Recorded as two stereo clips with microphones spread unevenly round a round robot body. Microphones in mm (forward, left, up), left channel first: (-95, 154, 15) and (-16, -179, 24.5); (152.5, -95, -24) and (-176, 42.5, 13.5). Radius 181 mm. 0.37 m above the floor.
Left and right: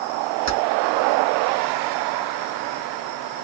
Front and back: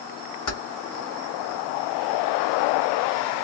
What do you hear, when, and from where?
0.5 s keys jangling: 15° right, 1.4 m